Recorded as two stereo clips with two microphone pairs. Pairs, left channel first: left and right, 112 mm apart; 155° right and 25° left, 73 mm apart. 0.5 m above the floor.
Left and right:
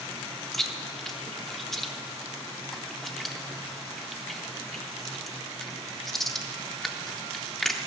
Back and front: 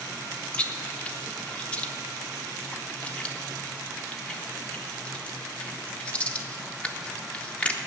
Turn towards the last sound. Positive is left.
turn(degrees=165)